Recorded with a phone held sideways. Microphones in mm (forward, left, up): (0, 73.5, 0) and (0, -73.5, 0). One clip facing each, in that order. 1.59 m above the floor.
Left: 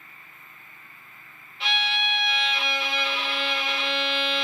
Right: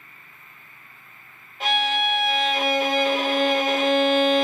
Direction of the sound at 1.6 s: 45° right (ahead or behind).